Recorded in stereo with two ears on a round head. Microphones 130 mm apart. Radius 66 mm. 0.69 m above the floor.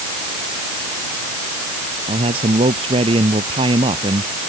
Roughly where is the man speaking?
Right.